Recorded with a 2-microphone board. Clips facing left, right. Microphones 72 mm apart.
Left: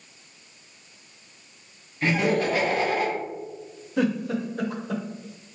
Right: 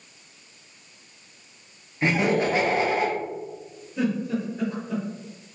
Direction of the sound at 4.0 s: 75° left (ahead or behind).